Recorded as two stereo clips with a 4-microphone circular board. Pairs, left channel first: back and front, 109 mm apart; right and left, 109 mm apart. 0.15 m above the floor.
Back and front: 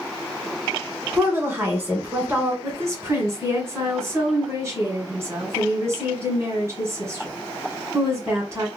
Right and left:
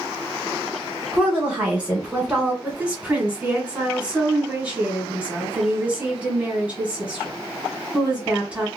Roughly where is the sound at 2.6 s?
Ahead left.